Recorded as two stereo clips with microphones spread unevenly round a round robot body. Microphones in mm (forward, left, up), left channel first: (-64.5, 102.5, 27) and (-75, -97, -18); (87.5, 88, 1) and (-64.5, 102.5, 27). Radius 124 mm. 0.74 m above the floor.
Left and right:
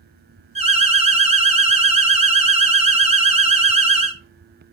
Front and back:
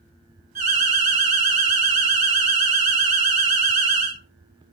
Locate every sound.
0.6 s an alarm: 135° right, 2.5 m